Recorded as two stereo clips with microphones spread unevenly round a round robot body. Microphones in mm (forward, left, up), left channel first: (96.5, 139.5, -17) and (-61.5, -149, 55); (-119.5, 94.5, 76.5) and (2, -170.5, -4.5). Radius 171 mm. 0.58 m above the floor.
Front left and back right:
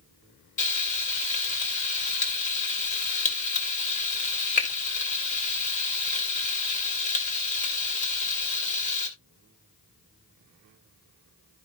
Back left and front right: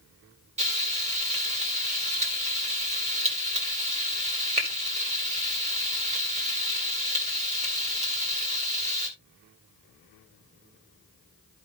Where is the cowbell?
No cowbell in this recording.